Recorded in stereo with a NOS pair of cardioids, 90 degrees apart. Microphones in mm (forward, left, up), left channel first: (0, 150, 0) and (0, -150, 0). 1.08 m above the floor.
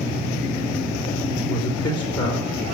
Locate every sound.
1.4 s a man speaking: 55° left, 3 m